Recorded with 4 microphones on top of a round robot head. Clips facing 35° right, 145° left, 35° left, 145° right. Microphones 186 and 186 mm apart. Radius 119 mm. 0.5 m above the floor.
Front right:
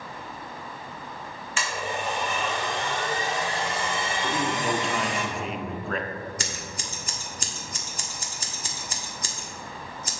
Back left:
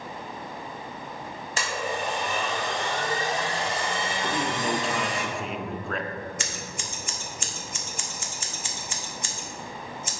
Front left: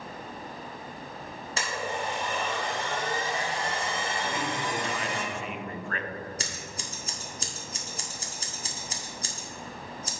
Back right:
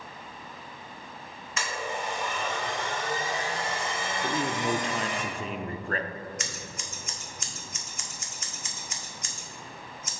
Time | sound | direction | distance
1.6 | a blender | 95° left | 3 m
4.2 | a man speaking | 125° right | 0.7 m
6.4 | scissors | 5° right | 1.6 m